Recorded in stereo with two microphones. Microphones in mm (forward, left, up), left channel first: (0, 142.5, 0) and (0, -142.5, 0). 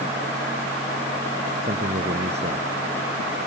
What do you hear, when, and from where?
1.6 s a man speaking: 35° right (ahead or behind); by 2.7 s 40° right (ahead or behind)